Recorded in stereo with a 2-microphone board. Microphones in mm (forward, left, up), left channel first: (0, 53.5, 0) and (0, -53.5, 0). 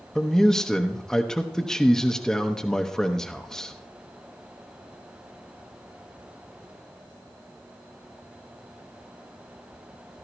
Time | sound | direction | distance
0.1 | a man speaking | 5° left (ahead or behind) | 0.8 m